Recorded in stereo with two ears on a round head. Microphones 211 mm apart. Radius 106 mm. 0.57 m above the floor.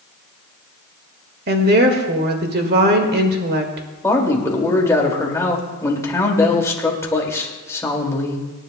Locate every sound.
1.5 s a woman speaking: 45° right (ahead or behind), 1.7 m
4.0 s a man speaking: 15° left (ahead or behind), 2 m